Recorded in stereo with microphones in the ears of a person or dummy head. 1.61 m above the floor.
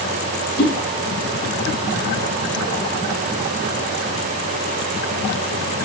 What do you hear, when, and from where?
0.6 s a whoosh: 60° left (ahead or behind), 5 m